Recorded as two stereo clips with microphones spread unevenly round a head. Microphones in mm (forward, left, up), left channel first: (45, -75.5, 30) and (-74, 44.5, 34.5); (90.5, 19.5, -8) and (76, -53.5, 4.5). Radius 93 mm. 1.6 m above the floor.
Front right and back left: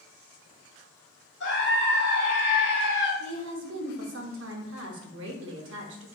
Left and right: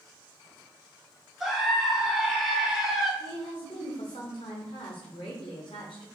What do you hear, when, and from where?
1.4 s a scream: 15° right, 1.7 m
3.2 s a woman speaking: 125° left, 0.8 m